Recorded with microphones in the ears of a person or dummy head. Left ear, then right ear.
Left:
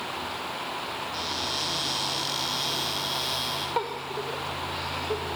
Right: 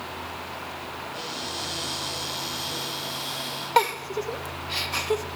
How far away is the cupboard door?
About 9.5 m.